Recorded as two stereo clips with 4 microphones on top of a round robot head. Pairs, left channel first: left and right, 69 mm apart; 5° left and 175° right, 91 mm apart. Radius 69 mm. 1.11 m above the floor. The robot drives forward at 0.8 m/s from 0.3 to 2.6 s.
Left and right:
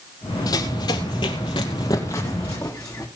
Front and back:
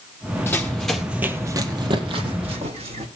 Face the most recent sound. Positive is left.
turn(degrees=175)